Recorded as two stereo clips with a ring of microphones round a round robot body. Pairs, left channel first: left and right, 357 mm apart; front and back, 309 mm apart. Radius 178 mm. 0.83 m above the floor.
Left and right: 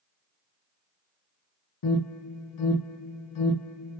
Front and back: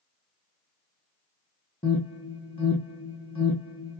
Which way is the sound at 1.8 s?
70° left.